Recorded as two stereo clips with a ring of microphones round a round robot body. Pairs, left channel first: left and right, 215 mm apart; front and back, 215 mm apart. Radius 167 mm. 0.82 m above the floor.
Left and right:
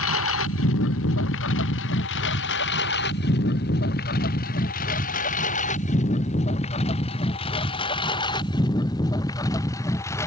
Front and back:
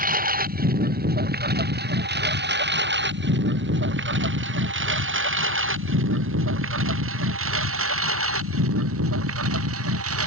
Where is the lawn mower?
130° left; by 10.3 s 170° left.